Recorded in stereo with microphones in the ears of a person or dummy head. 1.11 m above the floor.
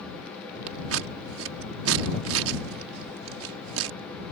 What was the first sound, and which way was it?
Scissors, 70° right (ahead or behind).